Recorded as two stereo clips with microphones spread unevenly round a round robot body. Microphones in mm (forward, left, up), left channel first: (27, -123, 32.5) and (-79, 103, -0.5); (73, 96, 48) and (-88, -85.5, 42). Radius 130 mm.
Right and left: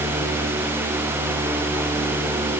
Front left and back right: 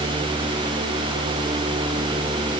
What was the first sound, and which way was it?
Only background noise.